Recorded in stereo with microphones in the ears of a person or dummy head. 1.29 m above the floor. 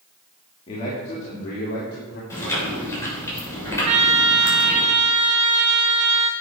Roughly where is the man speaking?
Left.